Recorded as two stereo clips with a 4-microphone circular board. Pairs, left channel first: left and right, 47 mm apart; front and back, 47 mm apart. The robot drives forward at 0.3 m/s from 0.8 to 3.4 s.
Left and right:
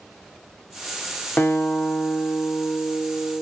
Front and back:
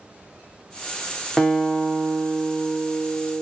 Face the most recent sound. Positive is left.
turn(degrees=125)